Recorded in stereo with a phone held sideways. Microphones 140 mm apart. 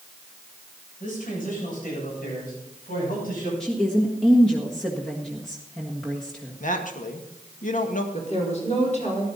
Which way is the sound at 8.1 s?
55° left (ahead or behind).